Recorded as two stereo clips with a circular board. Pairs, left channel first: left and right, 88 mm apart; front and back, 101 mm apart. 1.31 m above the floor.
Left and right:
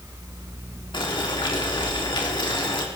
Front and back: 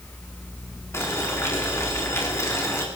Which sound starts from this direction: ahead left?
Boiling, at 0.9 s.